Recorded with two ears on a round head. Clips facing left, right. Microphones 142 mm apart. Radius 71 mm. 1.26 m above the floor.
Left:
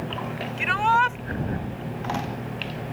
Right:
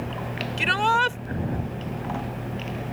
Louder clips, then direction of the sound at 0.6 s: Left 1 dB; 40° right (ahead or behind).